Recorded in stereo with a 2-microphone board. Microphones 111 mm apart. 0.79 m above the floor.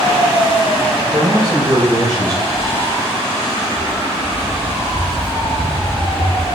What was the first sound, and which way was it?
A man speaking, 65° right (ahead or behind).